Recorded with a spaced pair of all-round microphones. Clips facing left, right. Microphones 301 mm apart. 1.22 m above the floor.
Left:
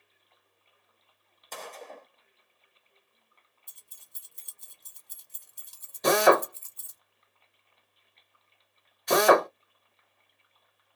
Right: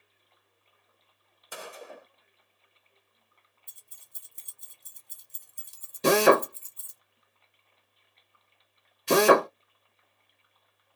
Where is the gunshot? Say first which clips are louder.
Even; 10° right (ahead or behind), 0.6 m.